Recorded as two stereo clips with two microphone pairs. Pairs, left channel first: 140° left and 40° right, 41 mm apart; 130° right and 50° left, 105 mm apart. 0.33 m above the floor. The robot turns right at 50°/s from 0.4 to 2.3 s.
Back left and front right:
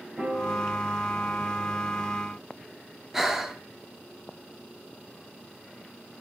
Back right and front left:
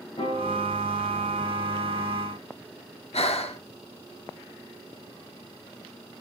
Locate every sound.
0.2 s a piano: 105° right, 6.5 m; by 2.1 s 20° right, 6.5 m
3.1 s breathing: 120° right, 1.5 m